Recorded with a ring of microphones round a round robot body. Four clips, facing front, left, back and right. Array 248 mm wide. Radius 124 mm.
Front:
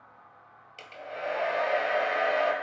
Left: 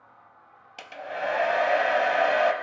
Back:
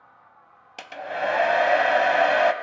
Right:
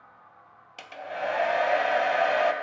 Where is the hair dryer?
Straight behind, 0.8 m.